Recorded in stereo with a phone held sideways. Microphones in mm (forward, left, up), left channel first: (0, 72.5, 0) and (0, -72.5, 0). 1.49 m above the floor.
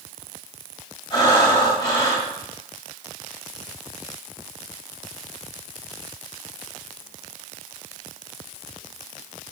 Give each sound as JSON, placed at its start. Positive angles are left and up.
{"t": 1.1, "sound": "breathing", "side_deg": 30, "distance_m": 2.0}